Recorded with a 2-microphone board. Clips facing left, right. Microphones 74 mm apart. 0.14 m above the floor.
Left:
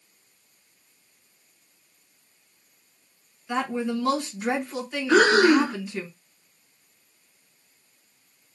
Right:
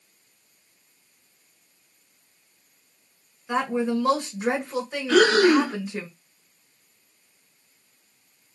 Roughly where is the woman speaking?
Right.